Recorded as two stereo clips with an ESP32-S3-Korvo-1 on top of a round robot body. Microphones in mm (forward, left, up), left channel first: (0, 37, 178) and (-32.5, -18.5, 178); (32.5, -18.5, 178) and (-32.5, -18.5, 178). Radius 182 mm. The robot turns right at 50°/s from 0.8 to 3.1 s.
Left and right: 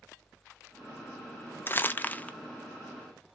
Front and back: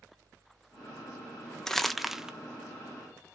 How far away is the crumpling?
About 0.6 m.